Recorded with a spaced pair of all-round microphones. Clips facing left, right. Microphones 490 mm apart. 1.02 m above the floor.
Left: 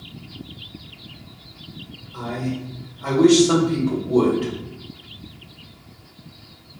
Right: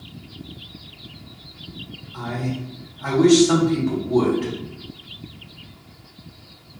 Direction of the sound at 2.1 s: 30° right (ahead or behind).